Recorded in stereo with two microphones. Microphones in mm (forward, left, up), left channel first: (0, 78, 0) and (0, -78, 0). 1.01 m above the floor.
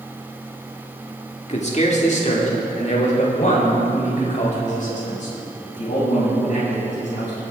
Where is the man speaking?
45° left (ahead or behind), 1.9 m; by 7.4 s 55° left (ahead or behind), 8 m.